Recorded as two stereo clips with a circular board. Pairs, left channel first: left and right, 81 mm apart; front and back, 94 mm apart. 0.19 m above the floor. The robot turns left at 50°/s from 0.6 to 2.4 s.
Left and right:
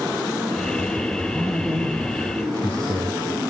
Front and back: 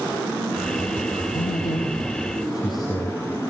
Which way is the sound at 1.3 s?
10° left.